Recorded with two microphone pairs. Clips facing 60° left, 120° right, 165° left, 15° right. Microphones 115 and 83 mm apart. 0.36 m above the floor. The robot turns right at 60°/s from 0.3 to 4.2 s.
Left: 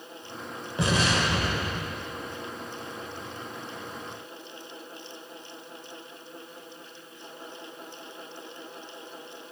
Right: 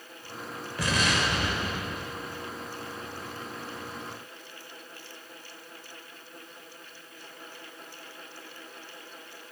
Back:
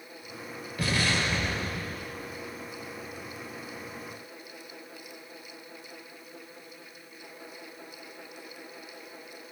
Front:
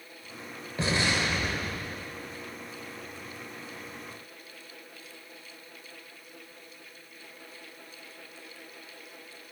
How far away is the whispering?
I don't hear whispering.